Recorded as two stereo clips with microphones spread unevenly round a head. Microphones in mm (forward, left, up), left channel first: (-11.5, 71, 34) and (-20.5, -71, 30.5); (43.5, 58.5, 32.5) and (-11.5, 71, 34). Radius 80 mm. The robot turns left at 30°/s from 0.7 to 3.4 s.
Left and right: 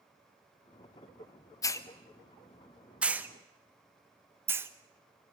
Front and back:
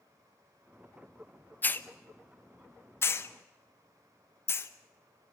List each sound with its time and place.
1.6 s a hiss: 25° left, 1.0 m; by 4.7 s 25° right, 1.0 m